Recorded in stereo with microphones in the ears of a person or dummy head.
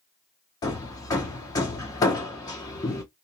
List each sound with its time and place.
0.6 s hammering: 15° left (ahead or behind), 0.6 m